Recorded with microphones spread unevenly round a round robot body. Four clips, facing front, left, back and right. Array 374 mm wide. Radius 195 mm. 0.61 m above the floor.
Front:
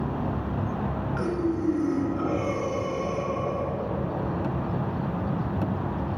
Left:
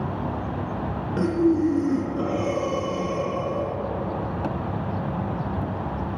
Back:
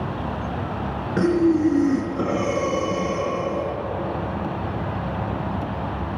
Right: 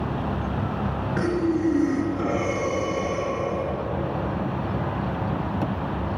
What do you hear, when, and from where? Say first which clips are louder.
1.2 s breathing: left 3 dB, back 10 dB; 160° left, 1.9 m